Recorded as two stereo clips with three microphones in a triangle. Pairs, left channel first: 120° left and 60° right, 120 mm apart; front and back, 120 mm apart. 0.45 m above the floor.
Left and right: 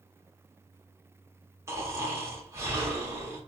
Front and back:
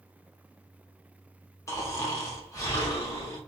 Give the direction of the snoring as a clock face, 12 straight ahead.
1 o'clock.